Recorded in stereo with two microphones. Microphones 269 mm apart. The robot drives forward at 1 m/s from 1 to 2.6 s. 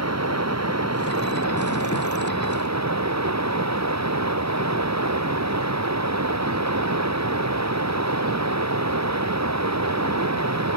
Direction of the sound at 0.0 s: 70° right (ahead or behind).